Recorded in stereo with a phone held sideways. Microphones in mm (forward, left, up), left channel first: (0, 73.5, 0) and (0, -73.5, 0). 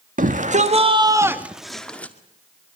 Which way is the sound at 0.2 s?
65° right (ahead or behind).